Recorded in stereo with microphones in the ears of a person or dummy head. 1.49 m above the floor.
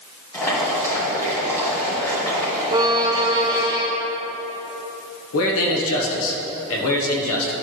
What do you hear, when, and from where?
0.3 s boiling: 15° left (ahead or behind), 2.5 m
2.7 s a violin: 20° right (ahead or behind), 0.6 m
5.3 s a man speaking: 75° left (ahead or behind), 1.1 m